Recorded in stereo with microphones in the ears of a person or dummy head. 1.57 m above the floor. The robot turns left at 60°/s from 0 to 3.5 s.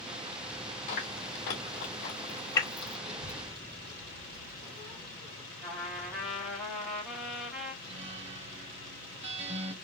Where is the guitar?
30° right (ahead or behind), 0.6 m.